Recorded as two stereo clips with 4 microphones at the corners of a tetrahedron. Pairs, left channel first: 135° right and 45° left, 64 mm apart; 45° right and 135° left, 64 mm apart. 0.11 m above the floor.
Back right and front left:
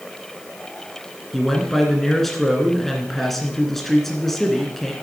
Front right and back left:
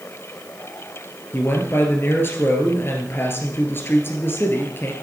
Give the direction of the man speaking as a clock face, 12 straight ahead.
2 o'clock.